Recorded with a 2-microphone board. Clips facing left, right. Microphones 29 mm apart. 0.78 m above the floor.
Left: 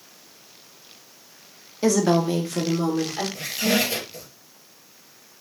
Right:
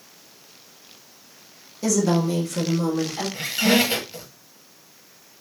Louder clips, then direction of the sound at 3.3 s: Right 4 dB; 50° right (ahead or behind).